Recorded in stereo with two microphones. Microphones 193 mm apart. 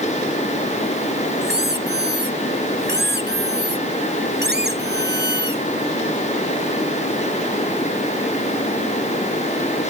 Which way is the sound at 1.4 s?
60° right (ahead or behind).